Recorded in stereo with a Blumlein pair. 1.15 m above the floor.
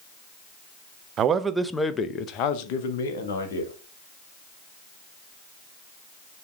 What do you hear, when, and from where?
1.2 s a man speaking: 30° right, 0.7 m; by 3.7 s 60° left, 1.7 m